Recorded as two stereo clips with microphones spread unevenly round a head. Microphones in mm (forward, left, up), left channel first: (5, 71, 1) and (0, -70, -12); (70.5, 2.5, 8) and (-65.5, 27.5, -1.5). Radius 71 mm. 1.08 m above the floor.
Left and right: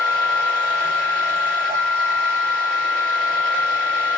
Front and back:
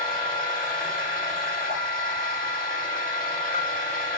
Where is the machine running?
40° right, 1.4 m.